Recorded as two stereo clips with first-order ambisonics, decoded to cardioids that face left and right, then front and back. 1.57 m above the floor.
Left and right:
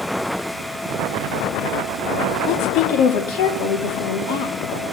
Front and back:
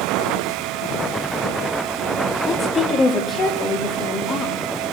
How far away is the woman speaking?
About 3.5 m.